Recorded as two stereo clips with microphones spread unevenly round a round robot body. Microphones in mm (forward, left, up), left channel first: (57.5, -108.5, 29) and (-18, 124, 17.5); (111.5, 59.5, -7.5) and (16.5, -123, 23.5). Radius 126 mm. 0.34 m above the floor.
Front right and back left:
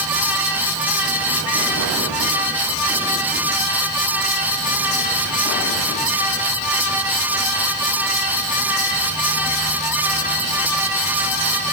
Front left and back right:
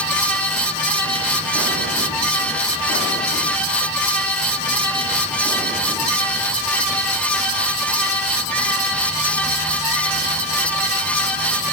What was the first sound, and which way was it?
Only background noise.